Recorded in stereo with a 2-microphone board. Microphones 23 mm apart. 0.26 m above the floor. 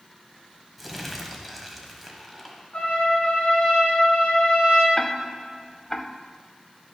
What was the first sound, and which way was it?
Crumpling, centre (ahead or behind).